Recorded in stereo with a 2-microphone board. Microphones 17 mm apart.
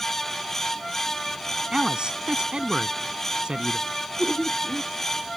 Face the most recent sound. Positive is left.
turn(degrees=-75)  # may be behind; listen again after turning